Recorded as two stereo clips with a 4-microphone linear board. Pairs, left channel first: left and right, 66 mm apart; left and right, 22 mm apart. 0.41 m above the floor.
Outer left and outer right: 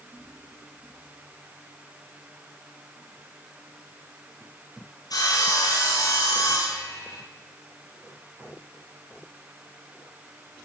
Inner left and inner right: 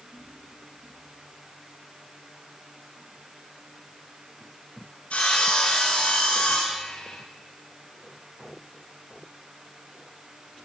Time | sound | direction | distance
5.1 | sawing | 75° left (ahead or behind) | 9 m